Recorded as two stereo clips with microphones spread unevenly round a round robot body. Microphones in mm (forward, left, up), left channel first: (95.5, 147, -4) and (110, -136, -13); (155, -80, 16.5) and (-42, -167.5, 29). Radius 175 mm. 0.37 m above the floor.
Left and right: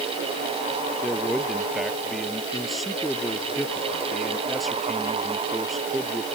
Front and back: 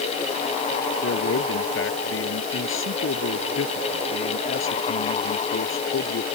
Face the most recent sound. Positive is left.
turn(degrees=5)